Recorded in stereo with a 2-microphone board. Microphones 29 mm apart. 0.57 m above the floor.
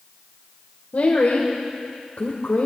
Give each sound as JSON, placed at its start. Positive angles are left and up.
{"t": 0.9, "sound": "a woman speaking", "side_deg": 60, "distance_m": 1.7}